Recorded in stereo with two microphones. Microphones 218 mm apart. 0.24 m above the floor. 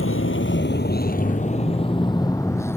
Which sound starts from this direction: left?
A vehicle, at 0.0 s.